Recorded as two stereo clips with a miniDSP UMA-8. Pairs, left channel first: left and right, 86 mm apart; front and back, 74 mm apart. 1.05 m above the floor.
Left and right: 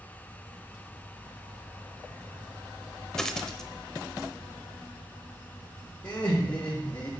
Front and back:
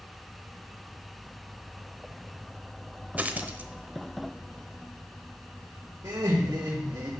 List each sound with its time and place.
3.2 s a dropped coin: 160° left, 0.8 m
6.0 s laughter: 135° left, 1.8 m